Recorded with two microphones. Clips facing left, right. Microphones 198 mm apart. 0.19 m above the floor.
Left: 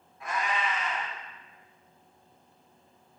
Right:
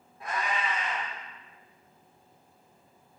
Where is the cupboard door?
I don't hear a cupboard door.